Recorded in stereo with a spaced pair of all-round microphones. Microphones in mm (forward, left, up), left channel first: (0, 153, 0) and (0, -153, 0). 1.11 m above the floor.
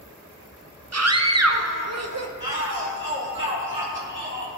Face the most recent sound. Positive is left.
turn(degrees=-40)  # may be behind; listen again after turning